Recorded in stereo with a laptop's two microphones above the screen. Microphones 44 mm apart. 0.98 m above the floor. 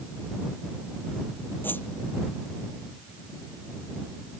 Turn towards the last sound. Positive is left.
turn(degrees=50)  # may be behind; listen again after turning